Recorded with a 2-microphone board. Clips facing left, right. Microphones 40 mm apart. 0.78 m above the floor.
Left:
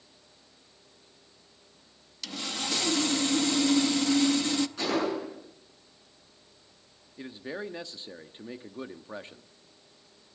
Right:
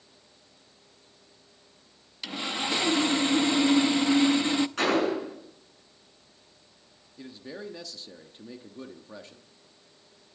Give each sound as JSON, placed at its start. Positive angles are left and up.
{"t": 2.2, "sound": "sawing", "side_deg": -25, "distance_m": 0.6}
{"t": 4.8, "sound": "a gunshot", "side_deg": -65, "distance_m": 8.0}
{"t": 7.2, "sound": "a man speaking", "side_deg": 30, "distance_m": 1.1}